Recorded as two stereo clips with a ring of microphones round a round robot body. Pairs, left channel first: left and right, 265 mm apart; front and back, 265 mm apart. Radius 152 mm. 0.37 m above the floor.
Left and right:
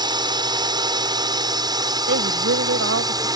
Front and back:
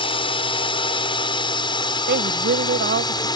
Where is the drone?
40° right; by 3.4 s 45° right.